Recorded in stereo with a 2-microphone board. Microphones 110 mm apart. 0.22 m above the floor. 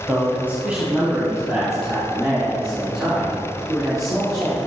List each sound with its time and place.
0.1 s a man speaking: 20° right (ahead or behind), 1.0 m; by 4.6 s centre (ahead or behind), 5 m